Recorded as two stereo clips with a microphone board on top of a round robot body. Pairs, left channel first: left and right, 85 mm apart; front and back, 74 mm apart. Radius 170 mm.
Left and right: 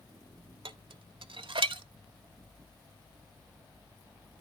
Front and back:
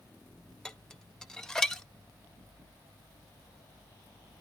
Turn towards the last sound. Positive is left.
turn(degrees=-85)